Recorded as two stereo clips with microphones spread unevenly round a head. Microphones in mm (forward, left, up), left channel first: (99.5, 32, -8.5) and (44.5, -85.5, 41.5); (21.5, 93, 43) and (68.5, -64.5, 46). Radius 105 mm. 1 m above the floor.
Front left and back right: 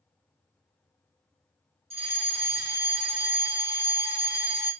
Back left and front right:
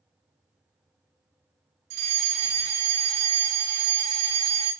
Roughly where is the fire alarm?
Ahead right.